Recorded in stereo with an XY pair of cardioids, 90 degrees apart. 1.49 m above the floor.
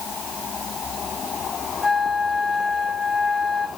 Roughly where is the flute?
Ahead.